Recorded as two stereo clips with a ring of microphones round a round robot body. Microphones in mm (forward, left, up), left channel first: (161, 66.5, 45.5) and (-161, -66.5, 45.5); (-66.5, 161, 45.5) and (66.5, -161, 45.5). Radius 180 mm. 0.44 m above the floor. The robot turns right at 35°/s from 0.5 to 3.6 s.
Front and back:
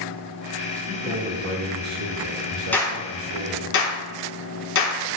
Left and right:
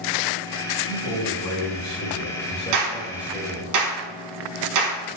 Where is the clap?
65° right, 4.5 m; by 5.2 s 35° right, 4.5 m.